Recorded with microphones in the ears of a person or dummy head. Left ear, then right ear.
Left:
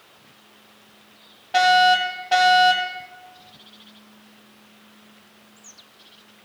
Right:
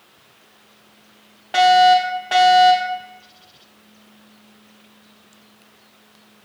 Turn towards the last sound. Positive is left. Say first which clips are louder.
# right 3 dB
turn(degrees=-45)  # may be behind; listen again after turning